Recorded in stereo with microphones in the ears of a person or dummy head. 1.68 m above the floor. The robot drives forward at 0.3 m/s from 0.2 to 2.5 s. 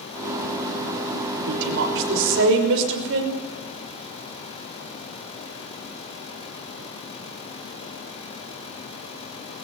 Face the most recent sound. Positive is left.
turn(degrees=-70)  # may be behind; listen again after turning